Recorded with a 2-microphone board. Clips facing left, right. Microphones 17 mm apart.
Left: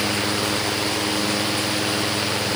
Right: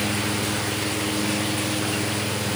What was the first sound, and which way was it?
Only background noise.